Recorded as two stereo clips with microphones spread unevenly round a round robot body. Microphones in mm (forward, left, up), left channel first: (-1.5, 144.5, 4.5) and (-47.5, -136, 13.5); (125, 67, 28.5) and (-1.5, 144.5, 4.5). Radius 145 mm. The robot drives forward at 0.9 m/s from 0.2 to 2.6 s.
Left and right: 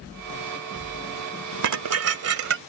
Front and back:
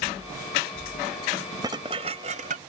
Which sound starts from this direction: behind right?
Dishes clattering, at 1.6 s.